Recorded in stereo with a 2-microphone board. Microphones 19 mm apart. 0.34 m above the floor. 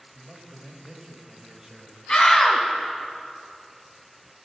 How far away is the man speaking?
About 1.4 m.